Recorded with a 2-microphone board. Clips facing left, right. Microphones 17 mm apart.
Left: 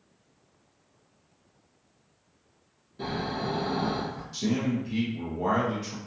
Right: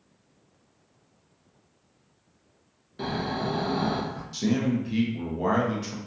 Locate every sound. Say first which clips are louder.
3.0 s snoring: right 2 dB; 40° right (ahead or behind), 0.6 m
4.3 s a man speaking: right 3 dB; 20° right (ahead or behind), 0.6 m